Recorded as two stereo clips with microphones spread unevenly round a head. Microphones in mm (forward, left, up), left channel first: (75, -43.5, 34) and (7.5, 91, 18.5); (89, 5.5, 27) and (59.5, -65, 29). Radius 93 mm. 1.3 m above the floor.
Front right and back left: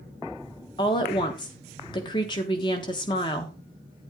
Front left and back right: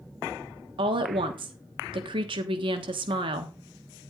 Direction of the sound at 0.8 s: 130° right.